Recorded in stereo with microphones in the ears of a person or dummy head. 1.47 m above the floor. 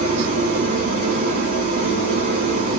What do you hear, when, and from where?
0.0 s an engine running: 40° right (ahead or behind), 1.0 m